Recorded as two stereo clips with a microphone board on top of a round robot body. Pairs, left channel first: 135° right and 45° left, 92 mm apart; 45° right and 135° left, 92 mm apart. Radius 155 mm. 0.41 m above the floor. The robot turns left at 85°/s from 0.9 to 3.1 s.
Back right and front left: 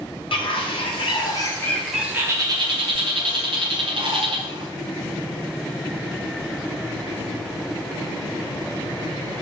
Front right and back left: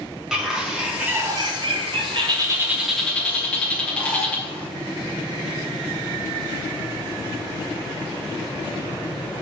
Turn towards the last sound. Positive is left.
turn(degrees=30)